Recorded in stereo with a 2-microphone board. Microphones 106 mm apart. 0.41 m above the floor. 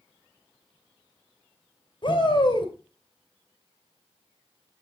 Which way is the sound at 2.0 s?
50° left (ahead or behind).